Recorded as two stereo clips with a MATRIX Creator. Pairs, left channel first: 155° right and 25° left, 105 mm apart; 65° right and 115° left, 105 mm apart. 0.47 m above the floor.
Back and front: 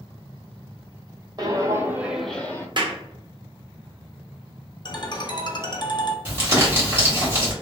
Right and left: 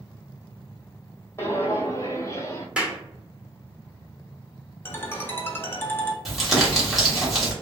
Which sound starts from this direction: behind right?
A ringtone, at 4.8 s.